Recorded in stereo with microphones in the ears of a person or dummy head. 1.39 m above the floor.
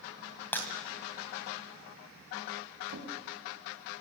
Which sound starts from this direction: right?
A drawer, at 2.9 s.